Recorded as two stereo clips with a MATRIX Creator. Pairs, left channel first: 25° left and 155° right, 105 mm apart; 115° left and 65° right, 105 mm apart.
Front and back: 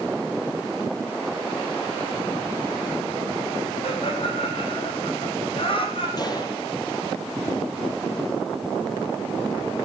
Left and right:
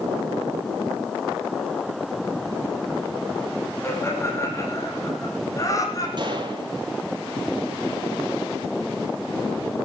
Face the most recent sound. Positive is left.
turn(degrees=-25)